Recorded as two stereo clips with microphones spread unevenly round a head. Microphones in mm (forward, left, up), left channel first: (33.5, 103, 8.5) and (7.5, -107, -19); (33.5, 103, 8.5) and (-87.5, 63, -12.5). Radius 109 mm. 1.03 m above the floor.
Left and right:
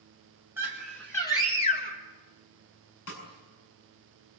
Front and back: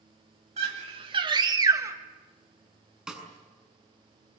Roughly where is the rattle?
I don't hear a rattle.